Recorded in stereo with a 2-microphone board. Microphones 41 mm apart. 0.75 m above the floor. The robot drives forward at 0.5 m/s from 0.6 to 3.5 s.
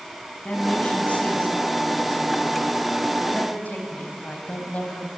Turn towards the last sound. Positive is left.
turn(degrees=45)  # may be behind; listen again after turning